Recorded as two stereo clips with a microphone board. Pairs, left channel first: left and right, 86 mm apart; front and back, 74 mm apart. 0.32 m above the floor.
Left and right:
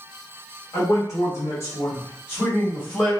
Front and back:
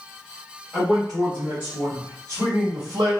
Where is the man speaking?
90° left, 1.3 m; by 3.1 s 170° left, 1.5 m.